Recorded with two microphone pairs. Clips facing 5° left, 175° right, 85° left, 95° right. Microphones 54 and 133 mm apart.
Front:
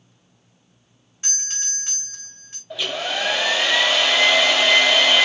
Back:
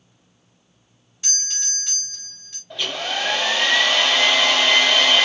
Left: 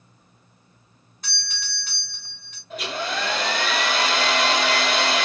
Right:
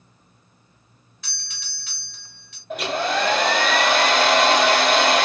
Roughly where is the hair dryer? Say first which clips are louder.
Front 1 dB, right 5 dB; right.